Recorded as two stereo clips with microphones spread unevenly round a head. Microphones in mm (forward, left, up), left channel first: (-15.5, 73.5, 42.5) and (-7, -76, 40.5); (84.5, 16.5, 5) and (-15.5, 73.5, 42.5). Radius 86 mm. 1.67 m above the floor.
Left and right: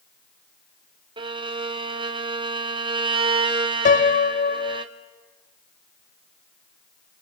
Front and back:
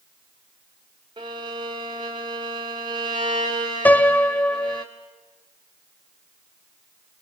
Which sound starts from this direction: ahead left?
A piano, at 3.9 s.